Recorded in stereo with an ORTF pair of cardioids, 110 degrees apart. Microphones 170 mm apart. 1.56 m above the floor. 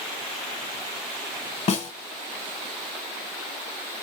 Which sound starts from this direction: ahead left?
A snare drum, at 1.7 s.